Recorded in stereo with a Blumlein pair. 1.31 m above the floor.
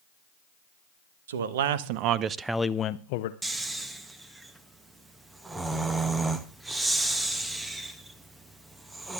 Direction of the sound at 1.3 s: 60° right.